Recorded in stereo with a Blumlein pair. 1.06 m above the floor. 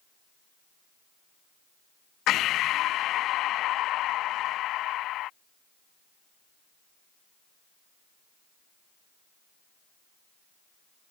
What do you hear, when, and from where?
2.3 s breathing: 35° left